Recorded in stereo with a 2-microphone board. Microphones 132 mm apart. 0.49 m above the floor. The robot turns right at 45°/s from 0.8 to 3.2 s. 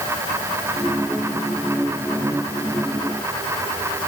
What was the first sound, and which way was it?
Only background noise.